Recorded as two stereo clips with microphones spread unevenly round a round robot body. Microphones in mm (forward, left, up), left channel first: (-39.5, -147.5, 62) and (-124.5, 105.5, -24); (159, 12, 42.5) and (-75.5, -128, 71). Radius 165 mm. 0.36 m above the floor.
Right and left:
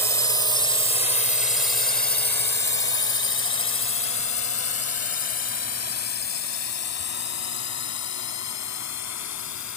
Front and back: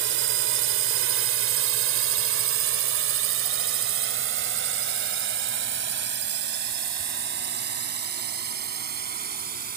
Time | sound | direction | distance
0.0 | a drone | 170° right | ?